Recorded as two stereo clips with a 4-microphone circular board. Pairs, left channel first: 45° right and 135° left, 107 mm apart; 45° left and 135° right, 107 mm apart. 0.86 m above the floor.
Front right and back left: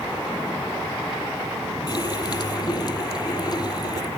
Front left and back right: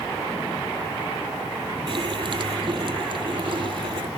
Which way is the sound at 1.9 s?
95° right.